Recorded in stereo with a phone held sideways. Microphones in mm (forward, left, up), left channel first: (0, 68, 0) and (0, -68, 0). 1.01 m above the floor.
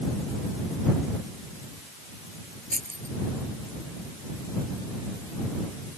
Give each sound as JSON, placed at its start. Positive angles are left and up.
{"t": 2.7, "sound": "keys jangling", "side_deg": -80}